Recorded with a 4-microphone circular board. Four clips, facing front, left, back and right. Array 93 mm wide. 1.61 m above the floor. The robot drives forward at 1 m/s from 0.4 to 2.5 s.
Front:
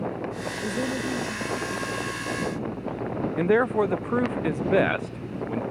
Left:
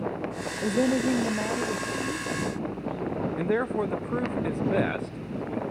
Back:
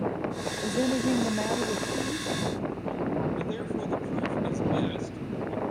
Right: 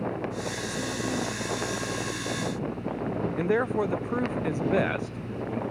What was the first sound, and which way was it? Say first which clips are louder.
A woman speaking: left 13 dB, back 3 dB; 85° left.